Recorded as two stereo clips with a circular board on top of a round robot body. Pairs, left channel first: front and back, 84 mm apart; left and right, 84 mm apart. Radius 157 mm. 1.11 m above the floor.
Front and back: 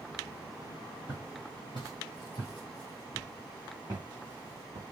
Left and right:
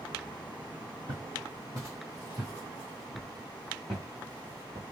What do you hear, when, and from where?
1.1 s footsteps: 35° right, 1.9 m; by 4.8 s 165° left, 1.2 m